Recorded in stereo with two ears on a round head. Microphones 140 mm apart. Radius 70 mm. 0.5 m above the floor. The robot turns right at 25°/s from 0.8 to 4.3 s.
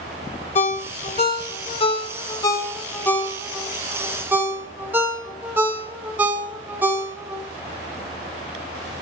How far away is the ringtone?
About 1.0 m.